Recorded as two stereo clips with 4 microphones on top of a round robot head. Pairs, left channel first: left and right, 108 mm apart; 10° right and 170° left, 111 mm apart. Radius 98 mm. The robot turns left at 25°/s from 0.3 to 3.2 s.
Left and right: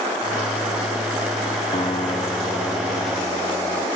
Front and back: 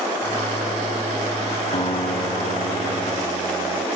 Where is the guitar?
30° left, 2 m; by 3.9 s 10° right, 2 m.